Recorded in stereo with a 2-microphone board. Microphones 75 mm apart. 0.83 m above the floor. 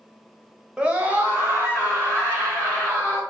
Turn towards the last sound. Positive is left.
turn(degrees=-35)  # may be behind; listen again after turning